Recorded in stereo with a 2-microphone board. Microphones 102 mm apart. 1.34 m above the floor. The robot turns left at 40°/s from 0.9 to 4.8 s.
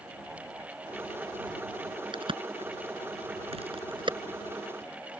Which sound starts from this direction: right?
A crack, at 2.1 s.